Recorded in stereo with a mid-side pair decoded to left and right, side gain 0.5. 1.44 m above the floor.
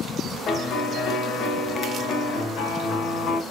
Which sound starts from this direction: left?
A piano, at 0.5 s.